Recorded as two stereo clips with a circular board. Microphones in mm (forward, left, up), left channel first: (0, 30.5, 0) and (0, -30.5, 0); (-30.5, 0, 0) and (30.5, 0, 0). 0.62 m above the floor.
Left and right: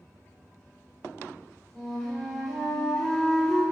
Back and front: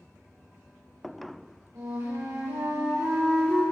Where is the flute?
10° left, 3.5 m.